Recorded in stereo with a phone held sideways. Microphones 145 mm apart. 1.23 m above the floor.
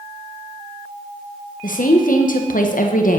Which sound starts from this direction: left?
A woman speaking, at 1.6 s.